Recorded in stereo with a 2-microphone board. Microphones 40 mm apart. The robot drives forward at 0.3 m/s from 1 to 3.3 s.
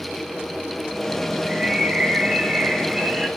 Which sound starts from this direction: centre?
A bird, at 1.4 s.